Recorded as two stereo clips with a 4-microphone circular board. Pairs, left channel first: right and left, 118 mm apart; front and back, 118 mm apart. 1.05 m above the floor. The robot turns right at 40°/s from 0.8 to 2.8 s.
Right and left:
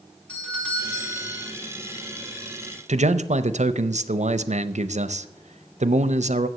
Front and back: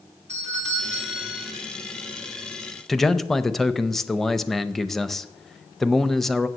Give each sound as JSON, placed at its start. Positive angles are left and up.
{"t": 0.3, "sound": "a doorbell", "azimuth_deg": -170, "distance_m": 2.5}
{"t": 2.9, "sound": "a man speaking", "azimuth_deg": 85, "distance_m": 0.6}